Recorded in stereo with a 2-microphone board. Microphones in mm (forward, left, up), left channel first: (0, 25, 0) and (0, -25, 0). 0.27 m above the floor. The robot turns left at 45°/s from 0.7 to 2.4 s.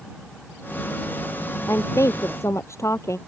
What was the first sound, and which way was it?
A woman speaking, 110° left.